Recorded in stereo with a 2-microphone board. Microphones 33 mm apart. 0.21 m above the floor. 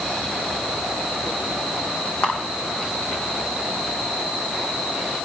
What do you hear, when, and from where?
2.2 s a camera shutter: 40° left (ahead or behind), 5 m